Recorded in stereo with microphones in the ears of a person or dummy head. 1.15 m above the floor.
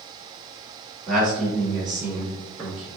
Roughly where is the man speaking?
Centre.